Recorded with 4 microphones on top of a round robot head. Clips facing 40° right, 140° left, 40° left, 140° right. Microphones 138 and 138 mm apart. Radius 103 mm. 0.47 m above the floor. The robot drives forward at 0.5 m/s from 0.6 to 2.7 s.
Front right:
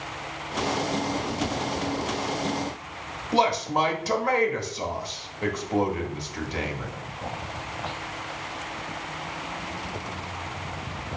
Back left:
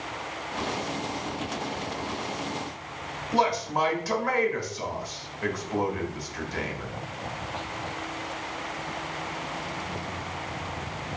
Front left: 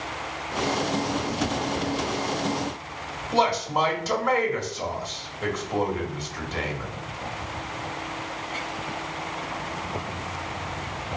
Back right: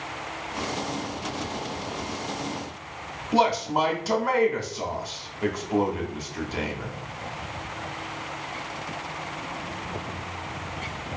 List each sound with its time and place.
3.3 s a man speaking: 70° right, 0.9 m